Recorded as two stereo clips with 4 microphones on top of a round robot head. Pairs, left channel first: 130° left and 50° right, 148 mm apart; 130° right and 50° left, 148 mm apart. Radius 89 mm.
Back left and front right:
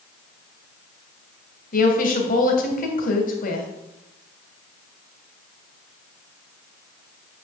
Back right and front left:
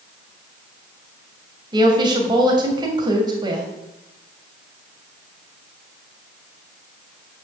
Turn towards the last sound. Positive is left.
turn(degrees=110)